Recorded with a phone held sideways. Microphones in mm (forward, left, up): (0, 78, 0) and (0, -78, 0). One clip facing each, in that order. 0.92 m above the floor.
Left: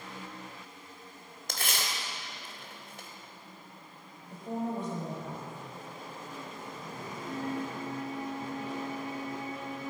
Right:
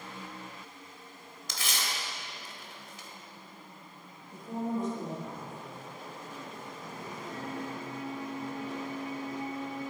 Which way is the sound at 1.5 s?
55° left (ahead or behind).